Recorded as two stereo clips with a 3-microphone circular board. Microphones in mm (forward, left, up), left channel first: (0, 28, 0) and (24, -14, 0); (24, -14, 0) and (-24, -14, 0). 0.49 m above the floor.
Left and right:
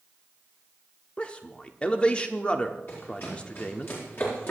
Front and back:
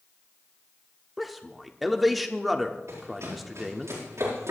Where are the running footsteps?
160° left, 6.5 m; by 4.5 s 165° left, 5.5 m.